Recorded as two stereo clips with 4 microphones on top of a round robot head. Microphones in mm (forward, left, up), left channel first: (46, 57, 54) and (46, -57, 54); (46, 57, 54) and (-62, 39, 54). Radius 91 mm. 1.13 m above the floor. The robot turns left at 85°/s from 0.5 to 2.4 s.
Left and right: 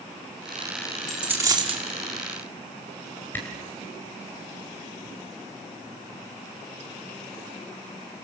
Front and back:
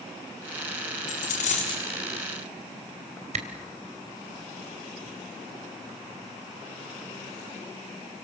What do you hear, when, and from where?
1.1 s a dropped coin: straight ahead, 4 m; by 1.8 s 60° right, 4 m
3.3 s a camera shutter: 170° left, 3 m